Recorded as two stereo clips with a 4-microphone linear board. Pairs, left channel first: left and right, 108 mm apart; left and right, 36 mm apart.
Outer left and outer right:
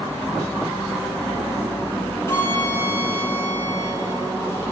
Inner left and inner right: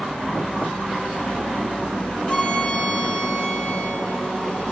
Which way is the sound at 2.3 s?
25° left (ahead or behind).